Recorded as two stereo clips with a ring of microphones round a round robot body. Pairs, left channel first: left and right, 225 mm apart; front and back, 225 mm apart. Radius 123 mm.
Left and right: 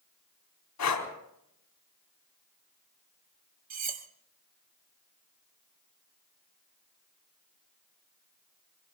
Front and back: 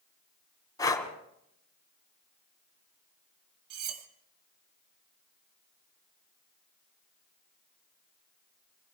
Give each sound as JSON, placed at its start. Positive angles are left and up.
{"t": 0.8, "sound": "breathing", "azimuth_deg": 75, "distance_m": 3.5}
{"t": 3.7, "sound": "cutlery clinking", "azimuth_deg": -140, "distance_m": 1.7}